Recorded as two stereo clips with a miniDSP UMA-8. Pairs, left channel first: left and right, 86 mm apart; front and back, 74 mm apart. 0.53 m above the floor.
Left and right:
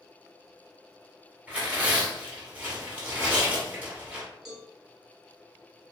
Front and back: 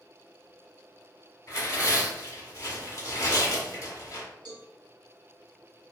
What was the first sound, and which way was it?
Tearing paper, 20° right.